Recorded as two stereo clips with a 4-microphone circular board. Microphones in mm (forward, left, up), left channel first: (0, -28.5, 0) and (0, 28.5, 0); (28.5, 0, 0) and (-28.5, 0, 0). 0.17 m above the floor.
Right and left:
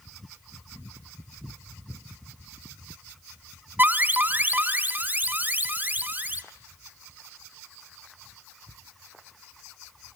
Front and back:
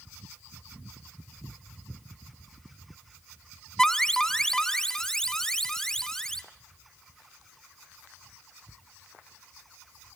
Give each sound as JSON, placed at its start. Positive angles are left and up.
{"t": 3.8, "sound": "an alarm", "azimuth_deg": 75, "distance_m": 0.8}